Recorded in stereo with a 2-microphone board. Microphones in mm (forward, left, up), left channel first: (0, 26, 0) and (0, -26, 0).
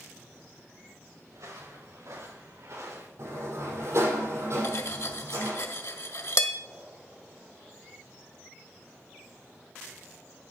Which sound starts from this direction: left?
Cutlery clinking, at 4.6 s.